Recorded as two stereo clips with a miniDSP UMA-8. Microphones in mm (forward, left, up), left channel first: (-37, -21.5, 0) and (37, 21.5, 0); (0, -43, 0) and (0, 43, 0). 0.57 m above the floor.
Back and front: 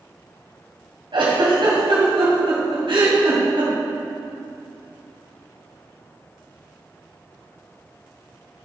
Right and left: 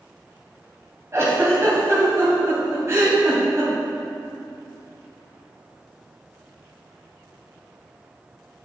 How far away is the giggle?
About 3 m.